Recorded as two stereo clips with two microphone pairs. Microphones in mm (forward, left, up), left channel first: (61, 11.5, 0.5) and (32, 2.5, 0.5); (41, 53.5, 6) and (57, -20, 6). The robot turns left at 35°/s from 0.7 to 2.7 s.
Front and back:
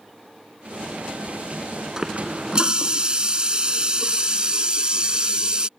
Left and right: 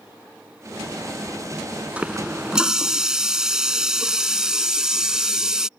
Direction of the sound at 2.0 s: 120° right.